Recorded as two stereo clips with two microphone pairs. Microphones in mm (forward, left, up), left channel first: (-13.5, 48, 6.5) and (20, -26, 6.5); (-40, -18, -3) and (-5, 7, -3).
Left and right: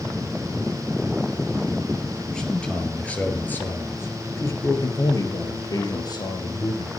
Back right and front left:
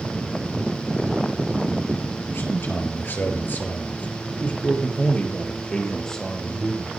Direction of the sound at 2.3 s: 165° right.